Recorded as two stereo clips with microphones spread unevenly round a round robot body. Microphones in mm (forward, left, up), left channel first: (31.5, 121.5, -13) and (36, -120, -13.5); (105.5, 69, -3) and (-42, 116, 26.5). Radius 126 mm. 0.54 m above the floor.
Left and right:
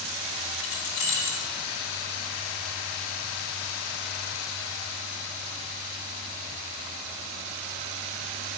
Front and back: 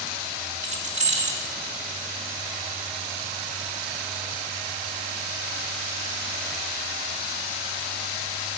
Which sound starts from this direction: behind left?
Keys jangling, at 0.6 s.